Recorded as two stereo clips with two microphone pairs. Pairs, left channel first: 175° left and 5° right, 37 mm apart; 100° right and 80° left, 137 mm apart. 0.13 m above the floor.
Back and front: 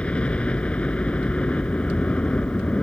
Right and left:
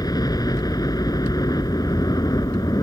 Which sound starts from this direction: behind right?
A helicopter, at 0.0 s.